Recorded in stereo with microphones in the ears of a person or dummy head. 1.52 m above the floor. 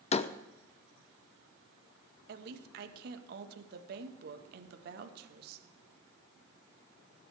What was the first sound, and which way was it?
A door slam, 45° left (ahead or behind).